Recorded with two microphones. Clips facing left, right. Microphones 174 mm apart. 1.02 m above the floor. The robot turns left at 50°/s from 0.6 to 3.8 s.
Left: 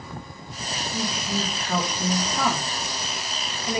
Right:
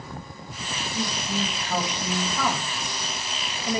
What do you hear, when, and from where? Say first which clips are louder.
0.9 s a woman speaking: even; 130° left, 2.5 m; by 2.2 s 65° left, 2.5 m
2.4 s a woman speaking: left 2 dB; 40° left, 2.0 m; by 3.8 s 35° right, 2.0 m